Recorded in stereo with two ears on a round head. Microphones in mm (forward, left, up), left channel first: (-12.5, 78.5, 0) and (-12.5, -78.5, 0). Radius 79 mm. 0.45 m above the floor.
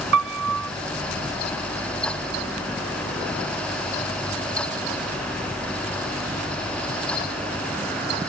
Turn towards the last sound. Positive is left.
turn(degrees=-80)